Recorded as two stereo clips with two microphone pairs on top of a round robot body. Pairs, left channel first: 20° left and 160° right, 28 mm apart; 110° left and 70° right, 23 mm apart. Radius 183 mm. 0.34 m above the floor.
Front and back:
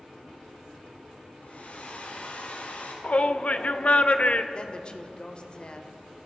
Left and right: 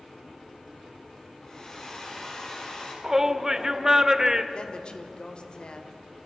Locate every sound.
1.4 s a hair dryer: 50° left, 5.5 m
3.0 s a shout: 5° right, 2.0 m
4.5 s a woman speaking: 70° left, 2.5 m